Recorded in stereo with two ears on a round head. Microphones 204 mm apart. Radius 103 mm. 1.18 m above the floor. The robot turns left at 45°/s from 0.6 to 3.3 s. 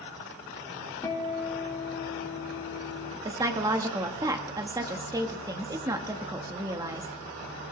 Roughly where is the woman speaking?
Centre.